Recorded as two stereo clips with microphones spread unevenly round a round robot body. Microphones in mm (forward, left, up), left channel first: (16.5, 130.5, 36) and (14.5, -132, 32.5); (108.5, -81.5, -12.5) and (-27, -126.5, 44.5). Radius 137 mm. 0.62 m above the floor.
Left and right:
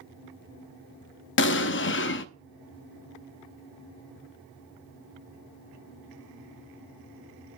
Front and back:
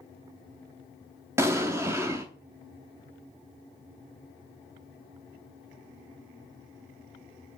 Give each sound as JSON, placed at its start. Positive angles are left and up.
{"t": 1.4, "sound": "an explosion", "azimuth_deg": 105, "distance_m": 0.6}